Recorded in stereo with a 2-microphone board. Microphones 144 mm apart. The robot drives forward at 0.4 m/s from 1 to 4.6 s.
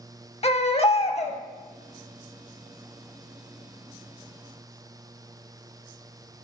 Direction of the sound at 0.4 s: 45° left (ahead or behind).